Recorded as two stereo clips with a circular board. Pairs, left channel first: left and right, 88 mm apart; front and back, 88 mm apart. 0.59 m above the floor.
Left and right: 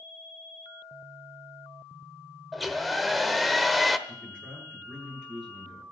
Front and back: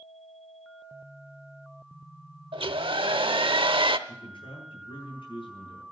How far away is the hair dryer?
About 0.8 m.